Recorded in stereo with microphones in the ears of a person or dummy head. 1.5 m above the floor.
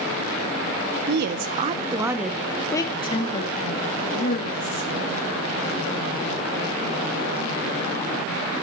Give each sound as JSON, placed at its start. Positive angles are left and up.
{"t": 1.1, "sound": "a woman speaking", "side_deg": -65, "distance_m": 1.1}